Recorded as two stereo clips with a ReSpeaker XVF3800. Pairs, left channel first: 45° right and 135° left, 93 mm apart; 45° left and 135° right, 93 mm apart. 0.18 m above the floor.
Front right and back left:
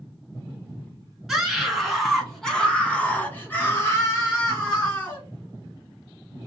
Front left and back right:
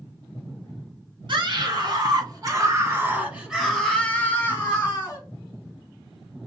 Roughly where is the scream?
Behind right.